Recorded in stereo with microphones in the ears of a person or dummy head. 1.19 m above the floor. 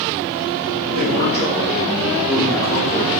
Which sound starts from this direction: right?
A man speaking, at 0.9 s.